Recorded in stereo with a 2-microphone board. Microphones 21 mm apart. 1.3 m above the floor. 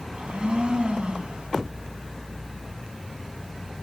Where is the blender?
60° right (ahead or behind), 4.5 m.